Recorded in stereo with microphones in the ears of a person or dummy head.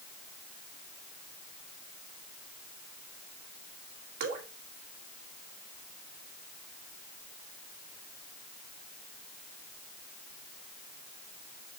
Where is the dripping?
55° right (ahead or behind), 2 m.